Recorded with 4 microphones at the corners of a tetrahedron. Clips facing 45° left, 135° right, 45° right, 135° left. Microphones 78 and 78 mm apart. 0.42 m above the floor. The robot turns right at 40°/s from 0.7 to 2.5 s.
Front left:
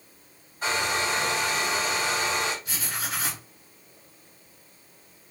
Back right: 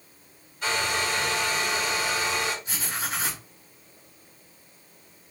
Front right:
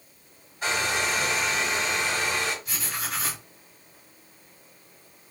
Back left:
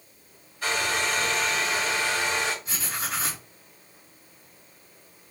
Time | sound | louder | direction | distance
0.6 | a hair dryer | even, even | 5° left | 1.8 m
2.6 | writing | back right 1 dB, back left 1 dB | 175° left | 1.6 m